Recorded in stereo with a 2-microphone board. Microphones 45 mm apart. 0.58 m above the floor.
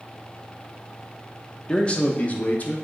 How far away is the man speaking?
About 0.9 m.